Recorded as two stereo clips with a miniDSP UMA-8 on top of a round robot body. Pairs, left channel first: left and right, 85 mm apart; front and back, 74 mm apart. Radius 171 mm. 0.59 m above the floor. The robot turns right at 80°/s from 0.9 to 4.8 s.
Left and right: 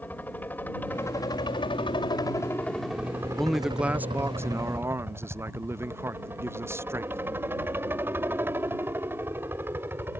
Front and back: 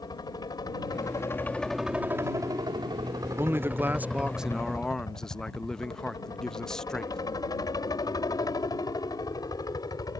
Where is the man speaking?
170° left; by 7.2 s 75° right.